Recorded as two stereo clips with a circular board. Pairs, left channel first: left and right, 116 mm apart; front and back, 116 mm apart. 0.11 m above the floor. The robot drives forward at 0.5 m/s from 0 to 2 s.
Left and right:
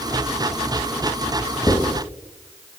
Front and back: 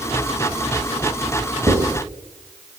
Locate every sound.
1.7 s writing: 130° left, 1.6 m; by 1.9 s 135° left, 1.7 m